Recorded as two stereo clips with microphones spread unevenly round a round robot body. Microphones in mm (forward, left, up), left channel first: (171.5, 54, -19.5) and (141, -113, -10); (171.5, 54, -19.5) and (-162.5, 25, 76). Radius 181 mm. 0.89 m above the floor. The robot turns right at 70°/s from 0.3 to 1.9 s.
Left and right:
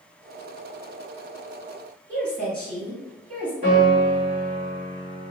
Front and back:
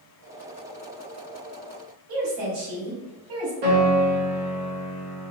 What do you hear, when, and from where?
2.1 s a woman speaking: 175° right, 2.0 m
3.6 s a piano: 175° right, 1.2 m